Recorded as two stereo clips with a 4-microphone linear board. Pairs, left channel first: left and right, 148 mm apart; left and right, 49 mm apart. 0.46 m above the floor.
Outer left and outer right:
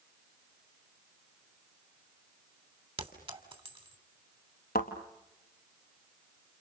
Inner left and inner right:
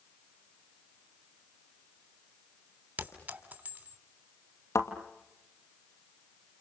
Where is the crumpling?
No crumpling in this recording.